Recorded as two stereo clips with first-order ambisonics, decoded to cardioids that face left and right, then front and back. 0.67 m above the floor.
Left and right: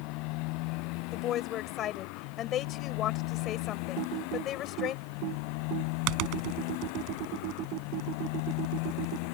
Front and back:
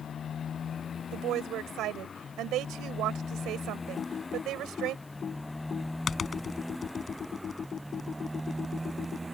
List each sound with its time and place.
0.0 s a motorcycle: 65° left; by 9.3 s 100° left
1.1 s a woman speaking: 140° left
4.0 s typing on a keyboard: 70° right